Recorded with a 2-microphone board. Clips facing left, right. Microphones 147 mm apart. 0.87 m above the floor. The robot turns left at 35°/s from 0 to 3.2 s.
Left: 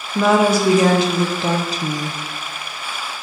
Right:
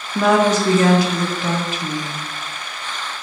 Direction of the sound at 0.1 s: Straight behind.